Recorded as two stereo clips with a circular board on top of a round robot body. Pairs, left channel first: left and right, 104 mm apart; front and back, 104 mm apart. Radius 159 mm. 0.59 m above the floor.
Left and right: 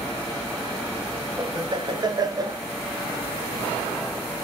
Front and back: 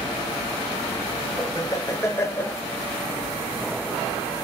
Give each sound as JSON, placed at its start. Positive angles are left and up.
{"t": 1.4, "sound": "laughter", "azimuth_deg": -50, "distance_m": 1.5}